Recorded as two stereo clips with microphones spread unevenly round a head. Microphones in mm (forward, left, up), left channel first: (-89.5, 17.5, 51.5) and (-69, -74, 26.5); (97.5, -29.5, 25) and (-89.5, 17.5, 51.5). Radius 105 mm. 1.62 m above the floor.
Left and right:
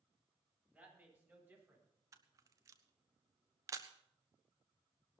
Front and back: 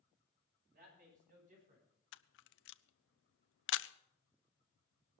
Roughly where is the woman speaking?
Behind right.